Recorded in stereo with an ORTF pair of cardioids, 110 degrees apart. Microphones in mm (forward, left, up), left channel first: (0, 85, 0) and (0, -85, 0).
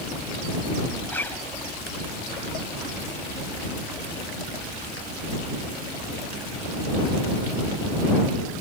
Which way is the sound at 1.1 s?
10° left.